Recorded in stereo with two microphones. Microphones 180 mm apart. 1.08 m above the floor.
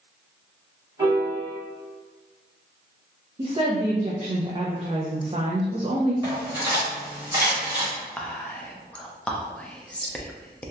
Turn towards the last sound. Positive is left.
turn(degrees=5)  # may be behind; listen again after turning